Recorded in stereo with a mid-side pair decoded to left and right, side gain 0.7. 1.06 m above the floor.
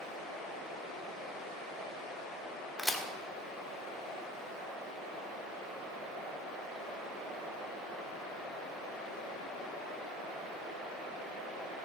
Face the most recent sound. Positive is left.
turn(degrees=0)